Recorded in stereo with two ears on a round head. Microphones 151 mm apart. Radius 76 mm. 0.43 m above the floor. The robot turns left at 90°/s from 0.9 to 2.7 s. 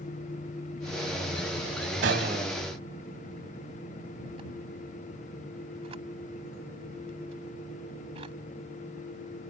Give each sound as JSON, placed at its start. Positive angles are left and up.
{"t": 2.0, "sound": "a gunshot", "side_deg": -75}